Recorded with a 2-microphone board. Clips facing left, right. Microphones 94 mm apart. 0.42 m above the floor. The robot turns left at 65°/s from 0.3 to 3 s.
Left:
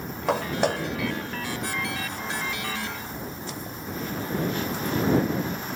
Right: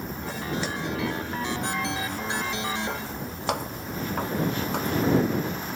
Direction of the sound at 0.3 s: 75° left (ahead or behind).